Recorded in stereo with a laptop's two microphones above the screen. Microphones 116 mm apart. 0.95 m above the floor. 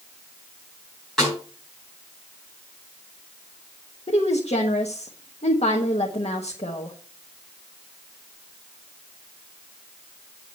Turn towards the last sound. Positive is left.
turn(degrees=65)  # may be behind; listen again after turning